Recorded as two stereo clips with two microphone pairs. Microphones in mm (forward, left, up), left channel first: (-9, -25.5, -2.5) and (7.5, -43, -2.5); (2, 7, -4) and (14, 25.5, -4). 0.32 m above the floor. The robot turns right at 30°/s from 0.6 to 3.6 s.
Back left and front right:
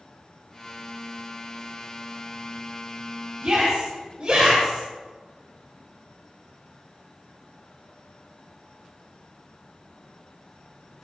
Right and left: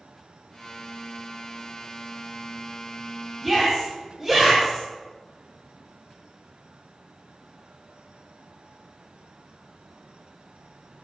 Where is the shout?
25° right, 1.9 m; by 4.8 s 20° right, 1.9 m.